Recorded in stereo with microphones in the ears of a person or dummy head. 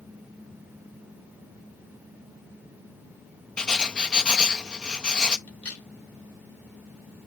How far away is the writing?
About 0.5 m.